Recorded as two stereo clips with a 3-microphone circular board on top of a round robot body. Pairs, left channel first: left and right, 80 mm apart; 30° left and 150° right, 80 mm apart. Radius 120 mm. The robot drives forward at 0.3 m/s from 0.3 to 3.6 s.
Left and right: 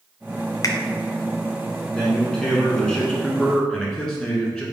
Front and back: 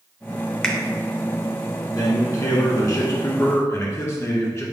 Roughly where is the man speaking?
Ahead.